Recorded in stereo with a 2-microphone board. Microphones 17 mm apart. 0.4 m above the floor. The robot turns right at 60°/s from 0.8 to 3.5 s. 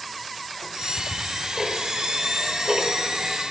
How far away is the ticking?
About 0.8 m.